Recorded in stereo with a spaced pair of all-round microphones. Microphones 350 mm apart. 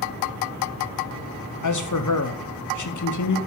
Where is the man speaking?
55° left (ahead or behind), 0.6 m.